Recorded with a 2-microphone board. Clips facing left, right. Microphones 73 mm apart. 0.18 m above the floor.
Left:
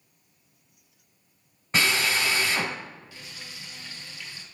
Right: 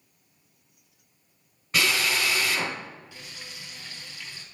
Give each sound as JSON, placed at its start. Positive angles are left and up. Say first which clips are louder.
{"t": 1.7, "sound": "a drill", "louder": "left 1 dB", "side_deg": 25, "distance_m": 1.5}
{"t": 3.1, "sound": "frying", "louder": "even", "side_deg": -15, "distance_m": 2.5}